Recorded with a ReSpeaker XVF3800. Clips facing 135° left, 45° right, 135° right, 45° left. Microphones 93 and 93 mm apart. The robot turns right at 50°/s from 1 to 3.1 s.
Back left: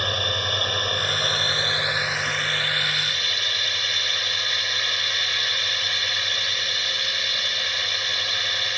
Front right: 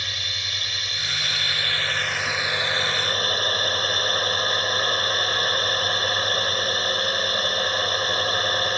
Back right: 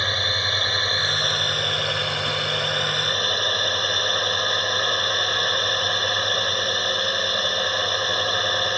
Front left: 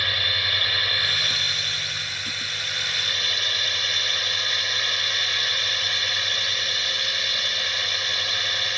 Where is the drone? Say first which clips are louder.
Back left 9 dB, back right 3 dB; 165° left; by 8.8 s 90° right.